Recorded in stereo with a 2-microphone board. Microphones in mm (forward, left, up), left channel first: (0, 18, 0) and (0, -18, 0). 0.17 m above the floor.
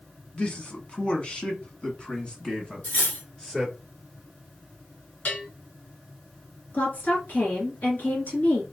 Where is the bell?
50° left (ahead or behind), 2 m.